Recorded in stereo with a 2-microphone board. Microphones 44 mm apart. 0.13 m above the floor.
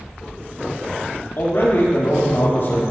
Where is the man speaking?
65° left (ahead or behind), 3 m.